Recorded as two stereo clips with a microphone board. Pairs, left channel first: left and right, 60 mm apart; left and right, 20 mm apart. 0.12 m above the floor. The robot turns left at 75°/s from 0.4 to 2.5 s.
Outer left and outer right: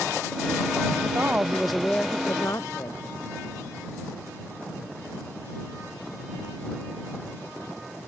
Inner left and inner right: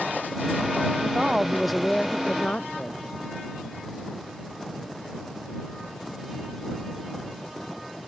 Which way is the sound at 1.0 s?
125° right.